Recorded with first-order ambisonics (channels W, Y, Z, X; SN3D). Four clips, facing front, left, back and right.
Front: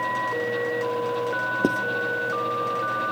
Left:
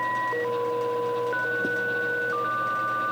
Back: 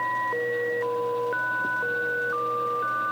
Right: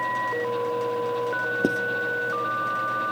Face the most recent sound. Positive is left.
turn(degrees=-35)